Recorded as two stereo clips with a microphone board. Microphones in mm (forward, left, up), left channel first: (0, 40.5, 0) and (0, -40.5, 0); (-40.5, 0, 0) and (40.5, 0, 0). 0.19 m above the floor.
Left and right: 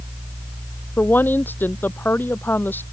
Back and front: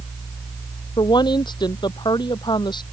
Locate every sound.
1.0 s a woman speaking: 155° left